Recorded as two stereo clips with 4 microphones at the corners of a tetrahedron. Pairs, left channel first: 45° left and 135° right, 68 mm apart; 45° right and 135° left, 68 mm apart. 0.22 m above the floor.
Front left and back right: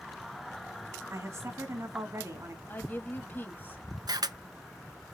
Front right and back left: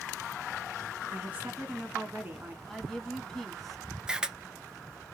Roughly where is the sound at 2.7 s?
Ahead left.